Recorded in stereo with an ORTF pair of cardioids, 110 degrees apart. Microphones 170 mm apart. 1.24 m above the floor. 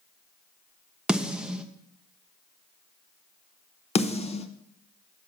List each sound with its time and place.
1.1 s a snare drum: 5° right, 0.8 m
4.0 s a snare drum: 40° left, 0.8 m